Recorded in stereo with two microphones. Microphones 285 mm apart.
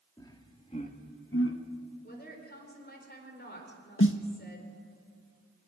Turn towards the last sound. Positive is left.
turn(degrees=45)  # may be behind; listen again after turning